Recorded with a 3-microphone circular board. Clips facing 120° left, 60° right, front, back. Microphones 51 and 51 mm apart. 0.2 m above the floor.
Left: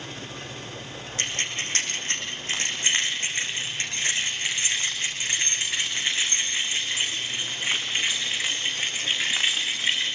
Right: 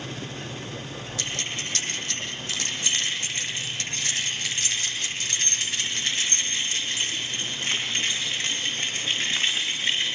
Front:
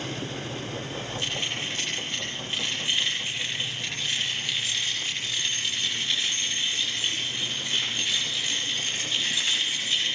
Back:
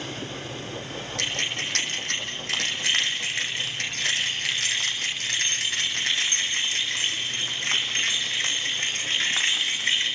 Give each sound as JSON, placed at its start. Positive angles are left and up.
{"t": 1.2, "sound": "keys jangling", "azimuth_deg": 170, "distance_m": 6.0}